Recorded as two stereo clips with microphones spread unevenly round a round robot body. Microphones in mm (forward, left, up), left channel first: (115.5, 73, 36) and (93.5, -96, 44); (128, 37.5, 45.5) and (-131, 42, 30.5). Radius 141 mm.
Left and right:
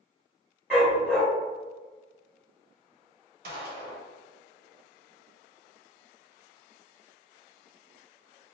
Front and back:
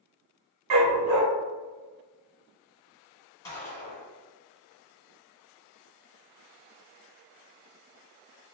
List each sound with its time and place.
0.7 s a dog barking: 175° left, 0.8 m
3.4 s a gunshot: 80° right, 0.8 m